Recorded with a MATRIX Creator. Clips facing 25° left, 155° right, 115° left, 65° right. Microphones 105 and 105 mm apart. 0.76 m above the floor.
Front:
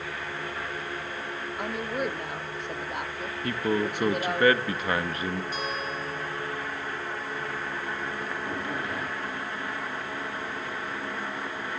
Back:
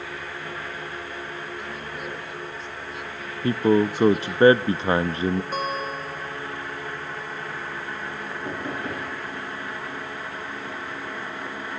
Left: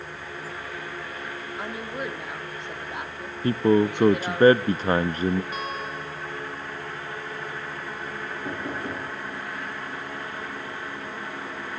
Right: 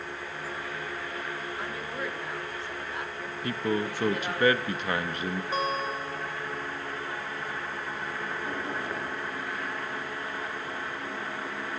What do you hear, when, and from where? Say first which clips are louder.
1.6 s a woman speaking: front 5 dB, left 2 dB; 45° left, 1.7 m
3.4 s a man speaking: back 8 dB, left 10 dB; 150° left, 0.5 m
5.5 s a guitar: back 4 dB, right 3 dB; 125° right, 1.3 m
8.4 s knocking: back 4 dB, left 4 dB; 150° left, 9 m